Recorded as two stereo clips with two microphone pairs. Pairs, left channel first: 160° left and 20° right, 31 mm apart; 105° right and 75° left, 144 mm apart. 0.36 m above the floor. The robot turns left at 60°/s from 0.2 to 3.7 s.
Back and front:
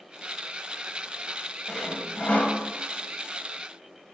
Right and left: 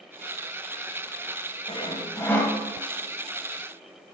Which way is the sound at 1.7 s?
135° right.